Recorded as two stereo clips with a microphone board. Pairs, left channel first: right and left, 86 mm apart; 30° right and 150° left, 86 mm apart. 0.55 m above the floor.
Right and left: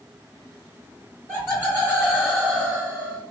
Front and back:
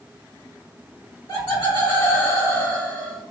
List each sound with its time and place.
1.3 s laughter: 30° right, 1.9 m; by 3.2 s 50° left, 1.2 m